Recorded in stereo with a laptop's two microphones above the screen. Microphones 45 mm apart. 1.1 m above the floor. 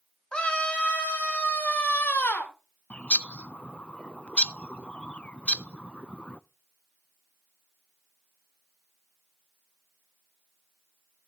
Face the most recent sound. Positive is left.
turn(degrees=30)  # may be behind; listen again after turning